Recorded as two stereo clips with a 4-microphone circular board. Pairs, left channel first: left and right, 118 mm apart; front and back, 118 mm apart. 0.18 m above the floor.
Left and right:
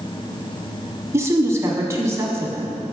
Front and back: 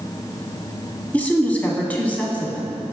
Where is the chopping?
No chopping in this recording.